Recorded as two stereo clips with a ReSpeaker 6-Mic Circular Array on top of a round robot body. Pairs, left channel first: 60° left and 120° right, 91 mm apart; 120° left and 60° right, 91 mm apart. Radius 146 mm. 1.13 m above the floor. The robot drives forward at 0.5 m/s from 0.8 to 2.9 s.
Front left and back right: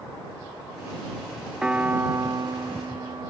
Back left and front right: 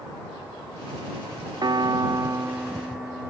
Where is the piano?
40° right, 0.6 m; by 3.3 s 145° right, 0.6 m.